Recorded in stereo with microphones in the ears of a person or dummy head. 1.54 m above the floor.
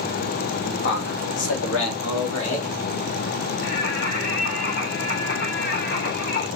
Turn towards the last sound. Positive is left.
turn(degrees=60)  # may be behind; listen again after turning